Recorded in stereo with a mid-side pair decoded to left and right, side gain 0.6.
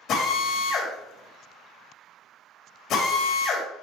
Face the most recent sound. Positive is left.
turn(degrees=60)